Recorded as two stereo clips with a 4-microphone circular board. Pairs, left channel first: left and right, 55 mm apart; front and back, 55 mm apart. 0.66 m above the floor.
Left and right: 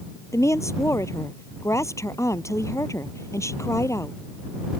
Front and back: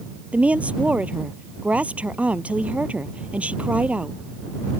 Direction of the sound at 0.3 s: 115° left.